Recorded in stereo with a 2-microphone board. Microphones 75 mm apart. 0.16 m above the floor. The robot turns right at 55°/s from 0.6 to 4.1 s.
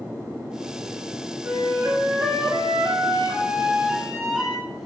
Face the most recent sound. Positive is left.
turn(degrees=-5)